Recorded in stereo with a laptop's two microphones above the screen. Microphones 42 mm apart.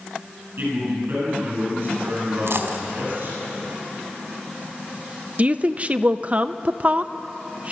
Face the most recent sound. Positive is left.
turn(degrees=-35)  # may be behind; listen again after turning